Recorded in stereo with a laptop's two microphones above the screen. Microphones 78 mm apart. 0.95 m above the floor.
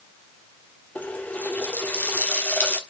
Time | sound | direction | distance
0.9 | a running tap | 20° left (ahead or behind) | 1.3 m